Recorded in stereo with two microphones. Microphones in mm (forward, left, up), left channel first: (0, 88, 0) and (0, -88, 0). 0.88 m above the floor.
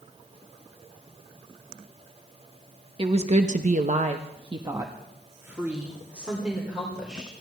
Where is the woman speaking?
30° right (ahead or behind), 1.1 m; by 7.3 s 5° right (ahead or behind), 3.5 m.